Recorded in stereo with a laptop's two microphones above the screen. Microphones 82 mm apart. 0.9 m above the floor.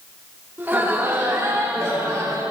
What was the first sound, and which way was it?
Laughter, 25° right (ahead or behind).